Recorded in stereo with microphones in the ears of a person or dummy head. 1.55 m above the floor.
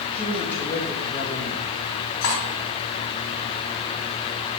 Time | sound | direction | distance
0.1 | a woman speaking | 5° left (ahead or behind) | 2 m
2.2 | cutlery clinking | 70° left (ahead or behind) | 2.5 m